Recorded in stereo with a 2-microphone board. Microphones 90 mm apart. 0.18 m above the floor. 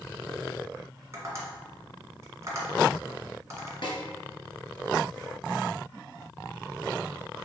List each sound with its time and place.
1.1 s tapping: 35° right (ahead or behind), 1.6 m
3.8 s a snare drum: 60° left (ahead or behind), 1.2 m